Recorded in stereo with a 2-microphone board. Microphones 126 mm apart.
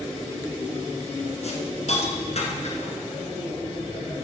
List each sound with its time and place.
1.4 s a hiss: 60° left (ahead or behind), 1.8 m